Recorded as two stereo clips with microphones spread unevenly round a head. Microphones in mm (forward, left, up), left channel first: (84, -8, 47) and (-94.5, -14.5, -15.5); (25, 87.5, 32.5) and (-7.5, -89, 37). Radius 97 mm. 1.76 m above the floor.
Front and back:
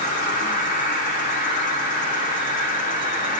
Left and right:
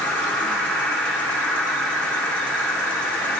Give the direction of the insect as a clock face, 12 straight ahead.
12 o'clock.